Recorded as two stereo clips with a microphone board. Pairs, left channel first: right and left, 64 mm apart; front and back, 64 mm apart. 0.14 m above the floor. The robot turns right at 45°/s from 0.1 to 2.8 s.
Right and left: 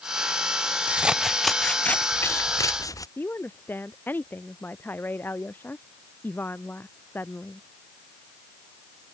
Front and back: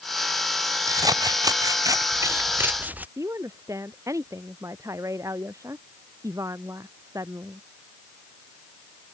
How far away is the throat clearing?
No throat clearing in this recording.